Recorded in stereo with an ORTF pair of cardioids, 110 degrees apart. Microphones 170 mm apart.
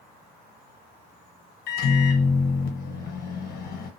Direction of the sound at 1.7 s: 70° left.